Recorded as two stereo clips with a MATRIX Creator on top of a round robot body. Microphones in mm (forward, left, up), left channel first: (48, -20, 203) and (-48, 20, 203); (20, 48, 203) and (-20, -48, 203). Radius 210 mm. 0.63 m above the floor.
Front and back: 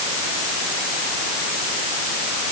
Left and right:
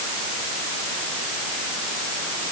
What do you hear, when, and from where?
Only background noise.